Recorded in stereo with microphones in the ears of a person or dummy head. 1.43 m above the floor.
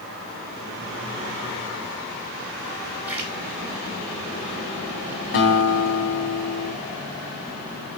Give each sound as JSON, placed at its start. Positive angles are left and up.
{"t": 3.1, "sound": "a splash", "side_deg": -15, "distance_m": 3.0}
{"t": 5.3, "sound": "a guitar", "side_deg": 55, "distance_m": 3.0}